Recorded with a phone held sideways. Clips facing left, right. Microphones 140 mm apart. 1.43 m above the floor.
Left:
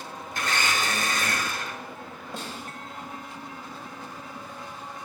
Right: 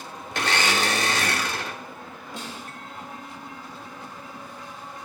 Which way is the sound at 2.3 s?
55° left (ahead or behind).